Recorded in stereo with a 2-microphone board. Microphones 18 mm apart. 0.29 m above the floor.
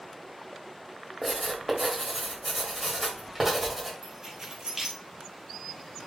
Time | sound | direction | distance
1.2 | writing | 5° right (ahead or behind) | 1.4 m
4.0 | keys jangling | 25° right (ahead or behind) | 2 m